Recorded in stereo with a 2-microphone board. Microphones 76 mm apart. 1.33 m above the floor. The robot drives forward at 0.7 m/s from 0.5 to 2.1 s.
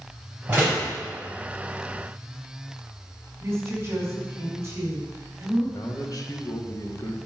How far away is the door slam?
About 5 m.